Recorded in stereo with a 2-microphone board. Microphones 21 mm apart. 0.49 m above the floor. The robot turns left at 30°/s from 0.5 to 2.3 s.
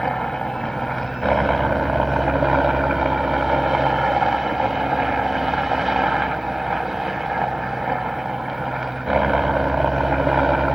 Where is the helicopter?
30° left; by 10.8 s 25° right.